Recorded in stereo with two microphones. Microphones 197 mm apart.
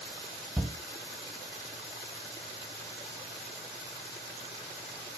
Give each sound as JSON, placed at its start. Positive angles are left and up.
{"t": 0.6, "sound": "a shout", "side_deg": 0, "distance_m": 0.8}